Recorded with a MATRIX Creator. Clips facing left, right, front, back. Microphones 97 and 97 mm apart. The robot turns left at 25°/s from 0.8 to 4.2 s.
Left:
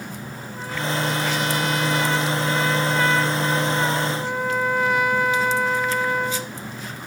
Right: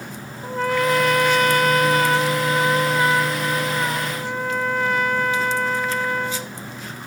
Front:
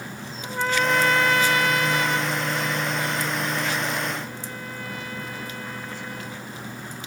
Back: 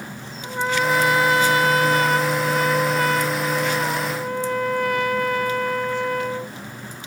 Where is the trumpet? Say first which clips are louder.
Right 9 dB, back 2 dB; 100° right; by 6.5 s 175° left.